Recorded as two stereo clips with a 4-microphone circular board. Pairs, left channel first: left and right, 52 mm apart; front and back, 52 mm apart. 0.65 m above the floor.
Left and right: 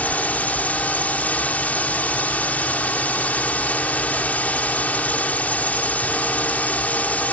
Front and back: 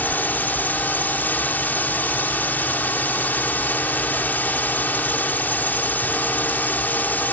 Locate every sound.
0.0 s a drone: 40° left